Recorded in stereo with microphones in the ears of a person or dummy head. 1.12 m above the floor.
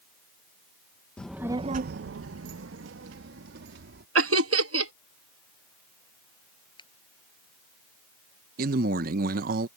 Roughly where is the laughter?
Right.